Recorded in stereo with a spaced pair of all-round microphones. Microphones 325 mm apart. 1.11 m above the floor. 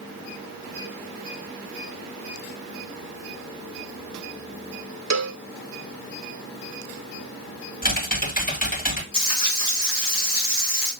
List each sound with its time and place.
5.1 s a cowbell: 55° right (ahead or behind), 0.5 m
7.8 s typing on a keyboard: 25° left (ahead or behind), 1.7 m
9.1 s frying: 80° left, 4 m